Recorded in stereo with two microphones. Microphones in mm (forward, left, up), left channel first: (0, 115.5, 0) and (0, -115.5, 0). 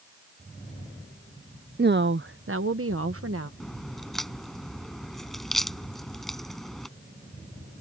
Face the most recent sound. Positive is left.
turn(degrees=0)  # may be behind; listen again after turning